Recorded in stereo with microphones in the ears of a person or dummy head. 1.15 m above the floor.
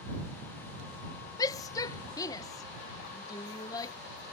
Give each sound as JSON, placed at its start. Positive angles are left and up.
{"t": 1.4, "sound": "a shout", "side_deg": 20}